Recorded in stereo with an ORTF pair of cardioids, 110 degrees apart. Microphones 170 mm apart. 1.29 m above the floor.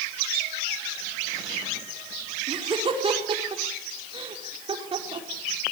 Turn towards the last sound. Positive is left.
turn(degrees=-30)